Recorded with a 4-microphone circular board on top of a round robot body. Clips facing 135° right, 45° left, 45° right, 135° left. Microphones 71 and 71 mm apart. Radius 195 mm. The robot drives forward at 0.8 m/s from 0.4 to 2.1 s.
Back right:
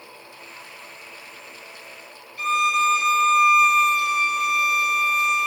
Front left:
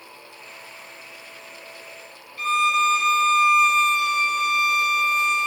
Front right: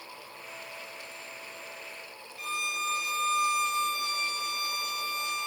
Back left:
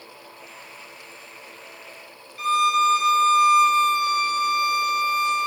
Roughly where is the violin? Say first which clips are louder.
Even, back left 15 dB; behind left.